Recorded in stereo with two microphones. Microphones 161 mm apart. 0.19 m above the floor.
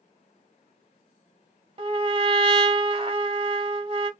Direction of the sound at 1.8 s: 35° right (ahead or behind).